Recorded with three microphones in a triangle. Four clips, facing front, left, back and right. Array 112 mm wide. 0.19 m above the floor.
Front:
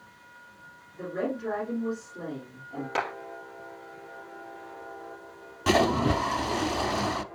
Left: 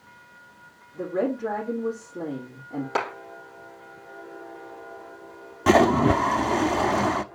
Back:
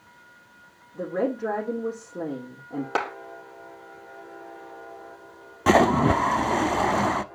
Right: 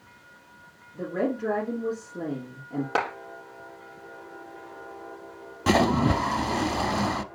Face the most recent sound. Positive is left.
turn(degrees=155)